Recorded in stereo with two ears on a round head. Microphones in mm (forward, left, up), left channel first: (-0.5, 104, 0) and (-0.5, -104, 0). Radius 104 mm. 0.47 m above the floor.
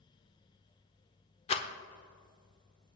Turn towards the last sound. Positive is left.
turn(degrees=25)  # may be behind; listen again after turning